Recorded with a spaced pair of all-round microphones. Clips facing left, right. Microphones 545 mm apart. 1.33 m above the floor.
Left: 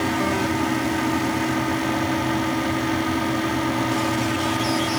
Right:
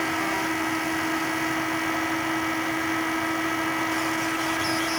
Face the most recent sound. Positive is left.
turn(degrees=75)  # may be behind; listen again after turning